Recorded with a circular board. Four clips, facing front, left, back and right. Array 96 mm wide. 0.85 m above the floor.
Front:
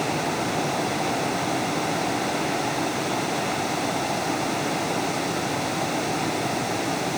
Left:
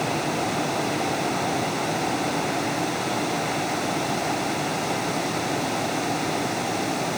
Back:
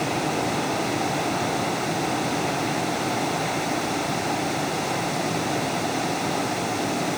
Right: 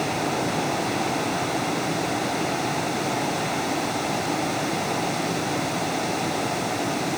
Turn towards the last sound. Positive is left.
No sound to turn to.